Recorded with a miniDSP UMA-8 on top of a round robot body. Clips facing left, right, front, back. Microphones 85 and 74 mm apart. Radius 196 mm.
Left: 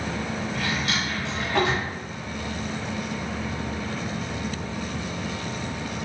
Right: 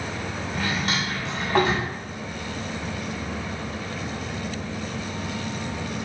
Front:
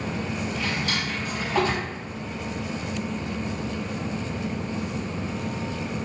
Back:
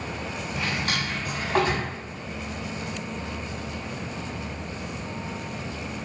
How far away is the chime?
I don't hear a chime.